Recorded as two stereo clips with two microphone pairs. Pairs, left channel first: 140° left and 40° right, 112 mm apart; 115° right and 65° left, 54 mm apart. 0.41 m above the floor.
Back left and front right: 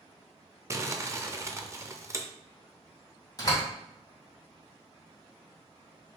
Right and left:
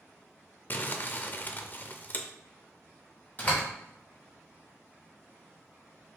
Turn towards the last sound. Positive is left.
turn(degrees=-165)